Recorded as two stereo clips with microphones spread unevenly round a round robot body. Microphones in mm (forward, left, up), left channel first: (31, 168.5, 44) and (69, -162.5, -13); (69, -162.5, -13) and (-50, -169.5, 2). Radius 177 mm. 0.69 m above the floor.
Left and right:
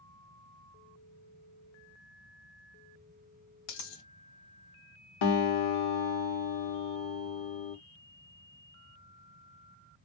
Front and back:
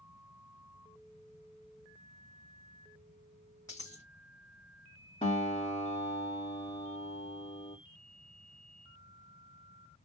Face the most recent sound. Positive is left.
turn(degrees=70)